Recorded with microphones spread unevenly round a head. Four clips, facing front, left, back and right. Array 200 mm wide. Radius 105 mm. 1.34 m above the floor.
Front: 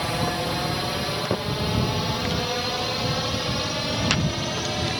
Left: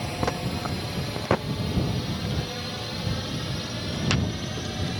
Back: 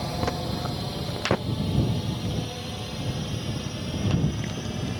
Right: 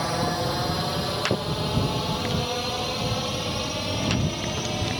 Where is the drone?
50° right; by 5.0 s 25° right.